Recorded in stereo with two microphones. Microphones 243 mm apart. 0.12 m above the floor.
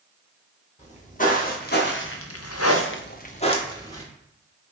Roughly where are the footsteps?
Left.